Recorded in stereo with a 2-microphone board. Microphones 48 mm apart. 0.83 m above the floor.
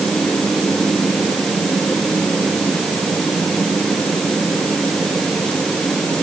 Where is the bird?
I don't hear a bird.